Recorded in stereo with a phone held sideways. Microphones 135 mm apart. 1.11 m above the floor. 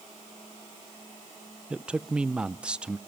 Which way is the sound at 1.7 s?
5° right (ahead or behind).